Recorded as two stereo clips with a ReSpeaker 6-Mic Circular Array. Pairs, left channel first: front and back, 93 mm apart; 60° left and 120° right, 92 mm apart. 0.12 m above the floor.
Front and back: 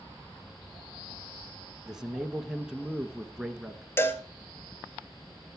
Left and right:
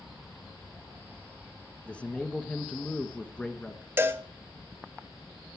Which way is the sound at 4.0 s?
60° right.